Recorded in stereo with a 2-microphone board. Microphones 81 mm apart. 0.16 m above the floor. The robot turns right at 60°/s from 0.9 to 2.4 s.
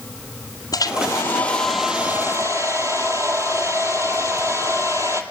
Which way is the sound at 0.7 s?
130° left.